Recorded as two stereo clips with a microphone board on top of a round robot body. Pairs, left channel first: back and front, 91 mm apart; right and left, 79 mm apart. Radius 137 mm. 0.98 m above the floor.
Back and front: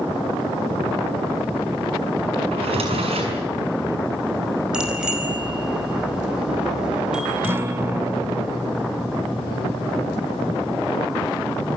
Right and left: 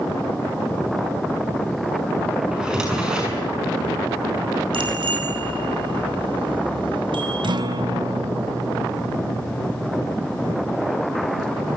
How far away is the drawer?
About 7.5 m.